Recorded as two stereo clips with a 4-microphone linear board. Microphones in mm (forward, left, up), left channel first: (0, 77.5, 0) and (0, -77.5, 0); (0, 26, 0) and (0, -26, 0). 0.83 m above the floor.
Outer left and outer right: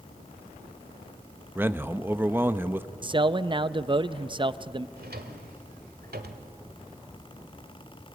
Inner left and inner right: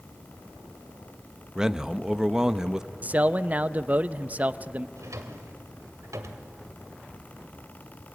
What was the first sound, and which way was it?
A man speaking, 15° right (ahead or behind).